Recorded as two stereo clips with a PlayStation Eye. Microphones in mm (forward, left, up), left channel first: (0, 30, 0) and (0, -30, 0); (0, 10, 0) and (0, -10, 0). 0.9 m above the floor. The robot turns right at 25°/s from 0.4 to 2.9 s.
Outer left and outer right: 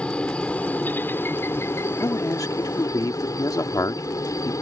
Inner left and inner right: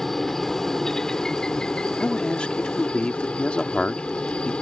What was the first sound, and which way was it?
A helicopter, 20° left.